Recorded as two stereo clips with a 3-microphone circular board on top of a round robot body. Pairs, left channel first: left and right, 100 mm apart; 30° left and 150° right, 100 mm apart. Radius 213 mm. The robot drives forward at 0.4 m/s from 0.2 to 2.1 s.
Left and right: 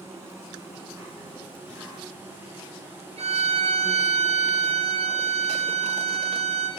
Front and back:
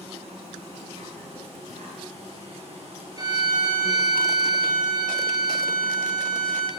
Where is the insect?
155° right, 3.5 m; by 6.8 s 160° right, 4.5 m.